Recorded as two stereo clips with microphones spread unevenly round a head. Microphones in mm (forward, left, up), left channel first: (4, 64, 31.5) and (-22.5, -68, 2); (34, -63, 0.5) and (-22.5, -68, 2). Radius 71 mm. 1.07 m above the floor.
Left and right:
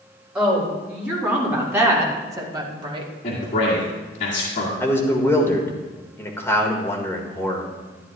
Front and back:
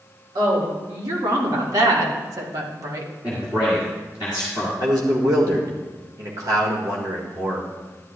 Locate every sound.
0.3 s a woman speaking: 175° left, 3 m; by 3.1 s 150° right, 1.3 m
3.2 s a man speaking: 120° left, 1.9 m
4.8 s a man speaking: 160° left, 1.6 m